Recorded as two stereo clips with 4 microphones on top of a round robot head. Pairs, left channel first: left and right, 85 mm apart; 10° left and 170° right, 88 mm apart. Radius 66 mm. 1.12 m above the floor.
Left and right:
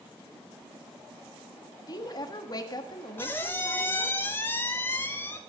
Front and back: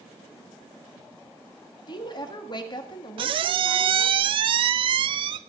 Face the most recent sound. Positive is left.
turn(degrees=160)